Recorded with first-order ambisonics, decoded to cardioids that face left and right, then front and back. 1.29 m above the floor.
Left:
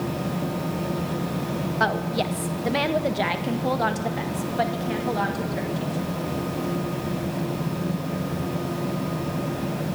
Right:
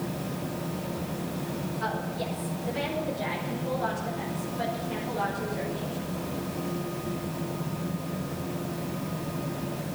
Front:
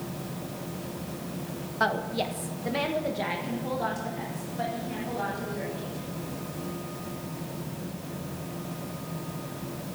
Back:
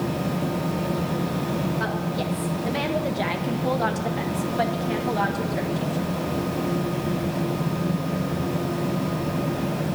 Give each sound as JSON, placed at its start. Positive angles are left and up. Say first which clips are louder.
{"t": 1.8, "sound": "a woman speaking", "louder": "left 9 dB, even", "azimuth_deg": 70, "distance_m": 1.3}